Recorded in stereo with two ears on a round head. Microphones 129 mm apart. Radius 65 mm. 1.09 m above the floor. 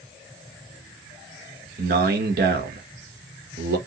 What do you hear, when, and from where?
1.8 s a man speaking: 65° right (ahead or behind), 1.0 m